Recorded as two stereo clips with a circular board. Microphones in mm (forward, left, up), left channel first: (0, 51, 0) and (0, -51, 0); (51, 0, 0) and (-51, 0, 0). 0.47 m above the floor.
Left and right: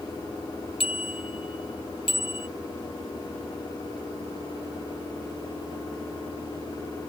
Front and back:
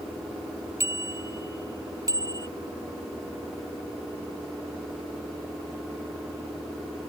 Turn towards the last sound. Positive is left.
turn(degrees=125)